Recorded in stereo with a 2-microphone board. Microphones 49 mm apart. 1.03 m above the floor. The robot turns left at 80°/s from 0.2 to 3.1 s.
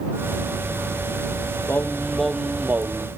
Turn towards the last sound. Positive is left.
turn(degrees=-65)